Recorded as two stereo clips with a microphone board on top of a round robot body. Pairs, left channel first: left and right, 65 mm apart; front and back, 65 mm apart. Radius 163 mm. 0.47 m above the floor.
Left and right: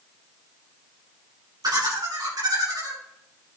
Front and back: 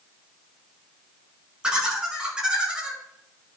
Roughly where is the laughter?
Right.